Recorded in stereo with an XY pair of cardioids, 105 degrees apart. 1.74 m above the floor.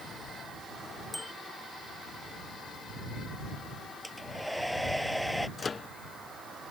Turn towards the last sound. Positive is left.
turn(degrees=35)